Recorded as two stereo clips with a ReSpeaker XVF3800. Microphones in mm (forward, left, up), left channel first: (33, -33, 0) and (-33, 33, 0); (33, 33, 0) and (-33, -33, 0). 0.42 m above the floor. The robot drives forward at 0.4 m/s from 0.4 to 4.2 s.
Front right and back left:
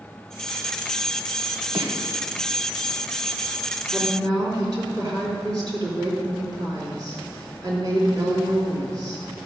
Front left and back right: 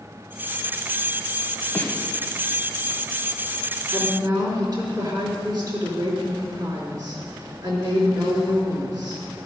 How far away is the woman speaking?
About 4 m.